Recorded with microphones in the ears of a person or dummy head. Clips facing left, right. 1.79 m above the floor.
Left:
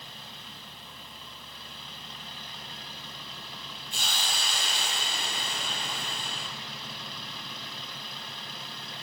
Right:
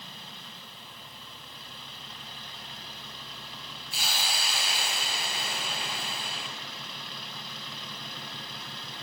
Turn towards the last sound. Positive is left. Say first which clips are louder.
# right 1 dB
turn(degrees=-5)  # may be behind; listen again after turning